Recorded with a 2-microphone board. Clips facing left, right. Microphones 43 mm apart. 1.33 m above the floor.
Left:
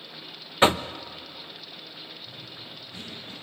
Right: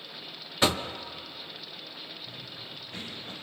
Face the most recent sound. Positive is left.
turn(degrees=-55)  # may be behind; listen again after turning